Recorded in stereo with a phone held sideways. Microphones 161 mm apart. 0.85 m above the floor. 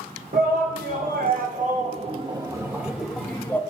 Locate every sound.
0.3 s a shout: 70° right (ahead or behind), 1.4 m; by 3.6 s 15° left (ahead or behind), 1.2 m